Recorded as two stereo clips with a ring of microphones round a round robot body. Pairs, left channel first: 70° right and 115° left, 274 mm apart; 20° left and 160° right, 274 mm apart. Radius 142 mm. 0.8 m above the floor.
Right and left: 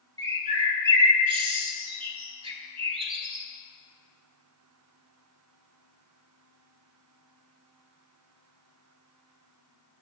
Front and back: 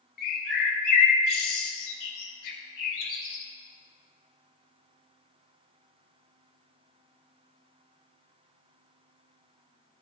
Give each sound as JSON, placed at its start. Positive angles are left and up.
{"t": 0.2, "sound": "a bird", "azimuth_deg": 40, "distance_m": 2.0}